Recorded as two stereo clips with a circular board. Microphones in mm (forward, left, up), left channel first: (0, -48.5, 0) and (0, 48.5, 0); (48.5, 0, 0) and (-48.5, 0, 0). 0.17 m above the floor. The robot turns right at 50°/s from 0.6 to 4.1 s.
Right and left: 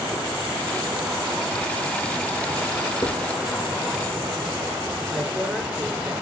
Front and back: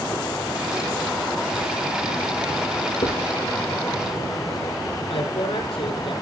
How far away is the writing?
About 5 m.